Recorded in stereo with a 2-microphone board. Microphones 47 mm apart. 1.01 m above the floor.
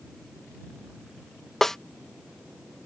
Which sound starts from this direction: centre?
A snare drum, at 1.6 s.